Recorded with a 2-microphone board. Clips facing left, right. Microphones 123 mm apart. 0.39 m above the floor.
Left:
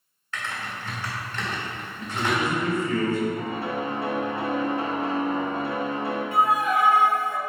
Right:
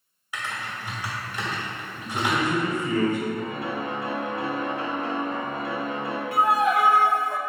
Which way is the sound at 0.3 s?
15° right (ahead or behind).